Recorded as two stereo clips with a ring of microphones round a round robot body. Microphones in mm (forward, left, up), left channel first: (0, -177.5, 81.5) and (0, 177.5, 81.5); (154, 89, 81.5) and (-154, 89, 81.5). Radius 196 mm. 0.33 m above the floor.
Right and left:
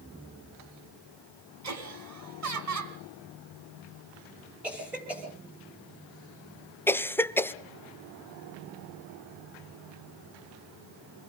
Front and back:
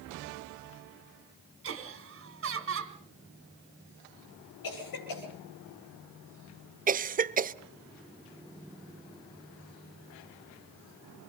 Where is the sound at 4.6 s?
5° left, 10 m.